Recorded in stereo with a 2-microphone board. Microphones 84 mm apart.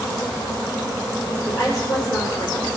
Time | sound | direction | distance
1.4 | a woman speaking | 40° left (ahead or behind) | 4 m